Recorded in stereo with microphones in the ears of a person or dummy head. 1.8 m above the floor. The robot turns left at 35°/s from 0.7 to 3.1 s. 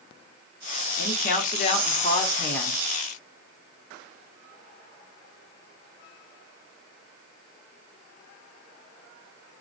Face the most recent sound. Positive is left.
turn(degrees=-5)